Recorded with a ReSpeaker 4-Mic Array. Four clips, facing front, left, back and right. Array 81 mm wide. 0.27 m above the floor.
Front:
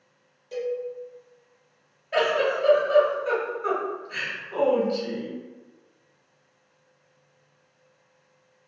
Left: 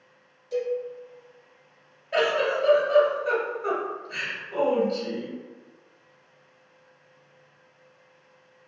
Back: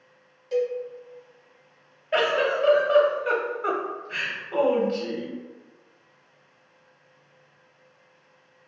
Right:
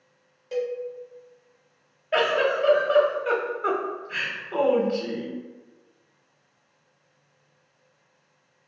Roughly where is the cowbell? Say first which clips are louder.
Left 1 dB, back 4 dB; right.